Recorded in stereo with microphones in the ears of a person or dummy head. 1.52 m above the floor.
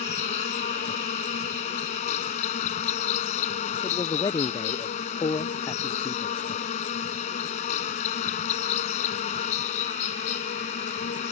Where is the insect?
45° left (ahead or behind).